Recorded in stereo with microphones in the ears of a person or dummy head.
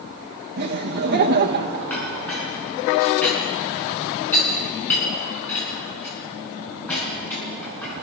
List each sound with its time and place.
0.6 s laughter: 55° right (ahead or behind), 1.8 m
1.9 s a clink: 10° left (ahead or behind), 9.5 m